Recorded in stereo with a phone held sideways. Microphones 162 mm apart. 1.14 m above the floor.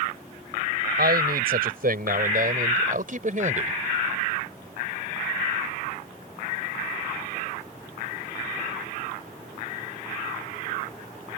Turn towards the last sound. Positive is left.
turn(degrees=-50)  # may be behind; listen again after turning